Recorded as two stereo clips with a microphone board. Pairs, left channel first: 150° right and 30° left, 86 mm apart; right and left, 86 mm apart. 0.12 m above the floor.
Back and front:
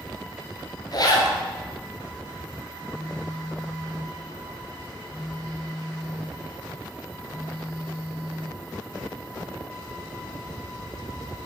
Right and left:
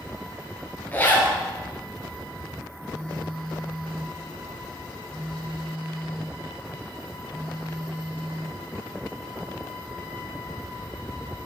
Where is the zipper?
150° right, 1.4 m.